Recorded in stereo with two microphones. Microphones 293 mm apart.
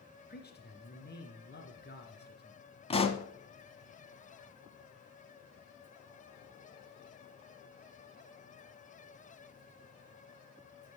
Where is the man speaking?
35° left (ahead or behind), 2.5 m.